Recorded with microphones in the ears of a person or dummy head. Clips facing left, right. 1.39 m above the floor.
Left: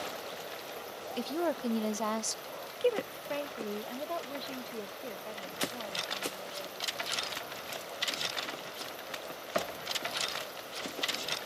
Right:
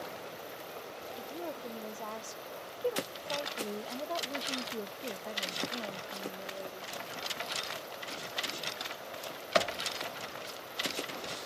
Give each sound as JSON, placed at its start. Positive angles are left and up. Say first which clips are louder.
{"t": 1.2, "sound": "a woman speaking", "louder": "left 10 dB", "side_deg": 80}